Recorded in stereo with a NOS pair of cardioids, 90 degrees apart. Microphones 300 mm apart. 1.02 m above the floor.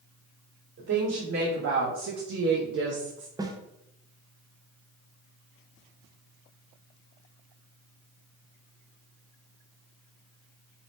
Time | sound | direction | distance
0.8 | a woman speaking | 45° right | 1.9 m
3.4 | a snare drum | 10° right | 0.8 m